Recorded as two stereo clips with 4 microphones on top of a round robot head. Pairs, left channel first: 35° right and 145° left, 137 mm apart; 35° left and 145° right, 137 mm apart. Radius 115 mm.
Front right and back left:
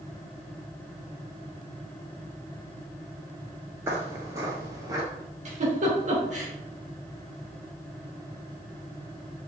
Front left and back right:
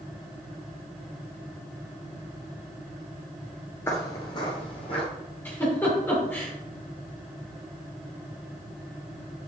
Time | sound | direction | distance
3.9 | footsteps | 90° left | 1.0 m
5.5 | a giggle | 110° left | 3 m